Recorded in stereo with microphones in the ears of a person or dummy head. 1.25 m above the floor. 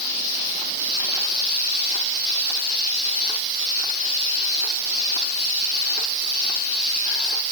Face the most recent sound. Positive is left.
No sound to turn to.